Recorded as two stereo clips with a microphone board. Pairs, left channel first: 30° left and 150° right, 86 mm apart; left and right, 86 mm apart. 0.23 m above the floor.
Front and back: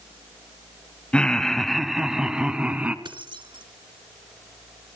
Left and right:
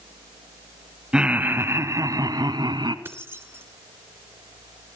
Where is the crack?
I don't hear a crack.